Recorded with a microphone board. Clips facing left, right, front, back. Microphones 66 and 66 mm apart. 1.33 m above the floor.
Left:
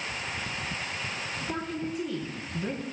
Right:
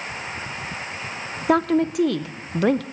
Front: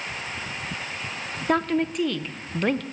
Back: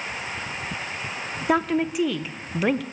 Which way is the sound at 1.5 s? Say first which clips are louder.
Right 16 dB, back 1 dB; 95° right.